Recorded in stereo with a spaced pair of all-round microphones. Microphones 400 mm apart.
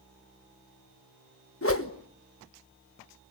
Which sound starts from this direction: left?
A whoosh, at 1.6 s.